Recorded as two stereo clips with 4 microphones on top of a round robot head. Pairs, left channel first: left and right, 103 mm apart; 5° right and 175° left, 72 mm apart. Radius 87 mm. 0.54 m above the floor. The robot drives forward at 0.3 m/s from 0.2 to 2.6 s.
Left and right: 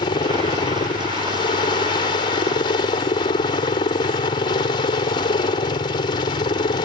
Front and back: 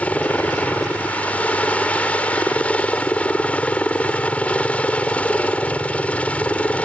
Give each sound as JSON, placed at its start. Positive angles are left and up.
{"t": 0.0, "sound": "a helicopter", "azimuth_deg": 65}